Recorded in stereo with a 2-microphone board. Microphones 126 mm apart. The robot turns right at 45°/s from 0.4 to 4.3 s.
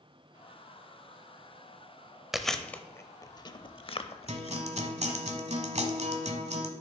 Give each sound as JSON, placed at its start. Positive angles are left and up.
{"t": 2.3, "sound": "chewing", "side_deg": -5, "distance_m": 0.6}
{"t": 4.3, "sound": "a guitar", "side_deg": -65, "distance_m": 0.9}